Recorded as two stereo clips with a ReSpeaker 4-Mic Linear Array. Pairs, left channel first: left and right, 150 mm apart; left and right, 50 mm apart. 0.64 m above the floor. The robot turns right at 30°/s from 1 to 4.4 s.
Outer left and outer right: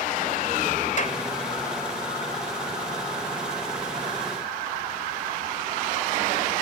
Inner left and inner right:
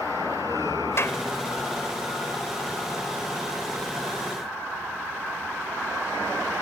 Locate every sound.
1.0 s a clap: 60° left (ahead or behind); by 1.2 s 55° left (ahead or behind)